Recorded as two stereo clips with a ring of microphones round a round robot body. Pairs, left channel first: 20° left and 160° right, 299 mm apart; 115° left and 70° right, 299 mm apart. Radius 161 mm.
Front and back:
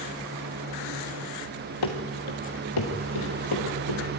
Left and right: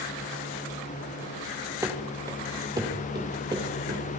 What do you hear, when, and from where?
1.8 s running footsteps: 15° left, 3 m; by 4.0 s 10° left, 5.5 m